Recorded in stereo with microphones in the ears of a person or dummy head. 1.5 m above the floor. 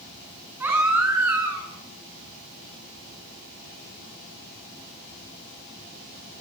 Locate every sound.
0.6 s a baby crying: 20° right (ahead or behind), 9 m